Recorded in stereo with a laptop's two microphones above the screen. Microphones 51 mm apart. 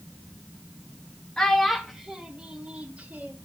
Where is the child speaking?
10° left (ahead or behind), 1.1 m; by 3.3 s 30° right (ahead or behind), 1.4 m.